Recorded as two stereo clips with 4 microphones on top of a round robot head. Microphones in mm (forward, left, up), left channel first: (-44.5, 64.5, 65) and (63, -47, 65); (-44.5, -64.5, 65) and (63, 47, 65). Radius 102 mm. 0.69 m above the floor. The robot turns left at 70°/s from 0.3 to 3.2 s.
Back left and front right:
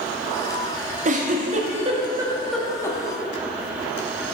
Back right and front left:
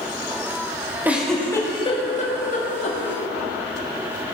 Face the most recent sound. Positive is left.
turn(degrees=180)